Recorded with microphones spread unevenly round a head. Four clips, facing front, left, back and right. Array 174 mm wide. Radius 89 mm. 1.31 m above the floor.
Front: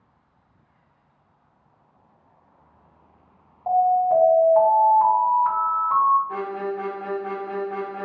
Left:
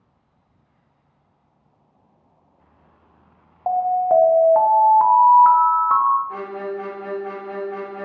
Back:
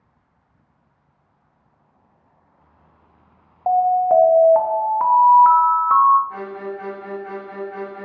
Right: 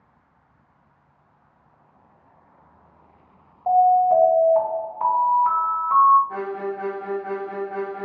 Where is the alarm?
135° left, 0.6 m.